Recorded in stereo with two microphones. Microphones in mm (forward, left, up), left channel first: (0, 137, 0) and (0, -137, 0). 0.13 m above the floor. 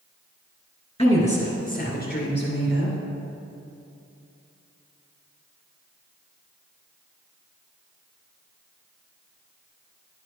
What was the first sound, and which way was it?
A woman speaking, 20° left (ahead or behind).